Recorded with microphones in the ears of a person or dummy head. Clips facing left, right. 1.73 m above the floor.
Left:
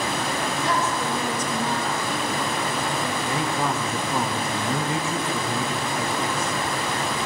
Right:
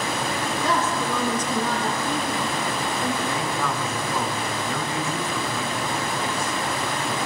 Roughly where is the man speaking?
Centre.